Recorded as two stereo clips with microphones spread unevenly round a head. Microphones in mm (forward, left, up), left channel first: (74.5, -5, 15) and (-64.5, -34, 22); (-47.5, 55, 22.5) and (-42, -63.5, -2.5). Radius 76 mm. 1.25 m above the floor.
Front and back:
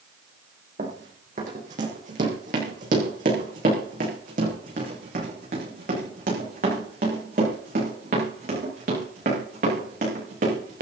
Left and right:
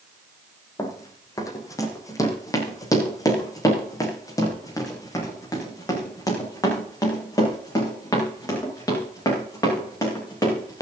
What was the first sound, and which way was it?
Running footsteps, 150° left.